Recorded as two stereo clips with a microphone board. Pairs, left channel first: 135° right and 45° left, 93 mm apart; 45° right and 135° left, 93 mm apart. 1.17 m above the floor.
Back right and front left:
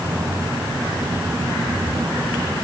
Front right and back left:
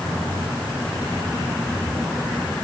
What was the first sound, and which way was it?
Only background noise.